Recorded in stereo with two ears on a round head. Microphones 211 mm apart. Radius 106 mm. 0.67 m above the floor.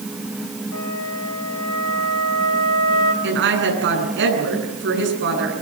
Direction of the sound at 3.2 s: 50° right (ahead or behind).